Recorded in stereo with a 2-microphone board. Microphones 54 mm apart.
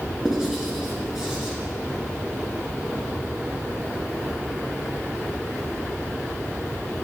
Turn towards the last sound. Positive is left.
turn(degrees=-10)  # may be behind; listen again after turning